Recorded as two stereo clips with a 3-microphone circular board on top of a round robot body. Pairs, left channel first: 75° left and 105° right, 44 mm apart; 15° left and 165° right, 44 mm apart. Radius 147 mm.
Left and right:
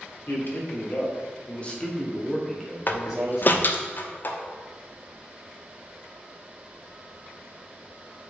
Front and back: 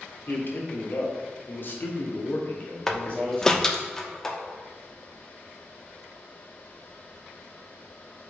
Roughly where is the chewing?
I don't hear chewing.